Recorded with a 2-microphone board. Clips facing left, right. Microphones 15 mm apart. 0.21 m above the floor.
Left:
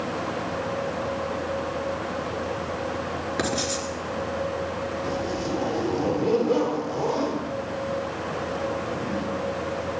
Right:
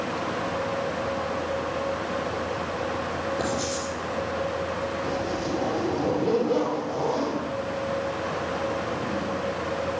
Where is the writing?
60° left (ahead or behind), 3.5 m.